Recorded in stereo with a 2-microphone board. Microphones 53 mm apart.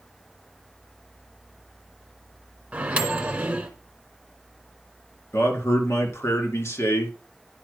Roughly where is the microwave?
Right.